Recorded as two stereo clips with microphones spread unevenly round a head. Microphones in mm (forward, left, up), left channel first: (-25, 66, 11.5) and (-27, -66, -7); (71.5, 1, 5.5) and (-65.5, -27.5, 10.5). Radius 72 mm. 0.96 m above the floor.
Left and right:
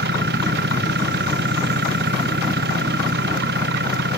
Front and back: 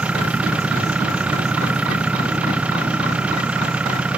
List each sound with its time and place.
0.0 s an engine running: 85° right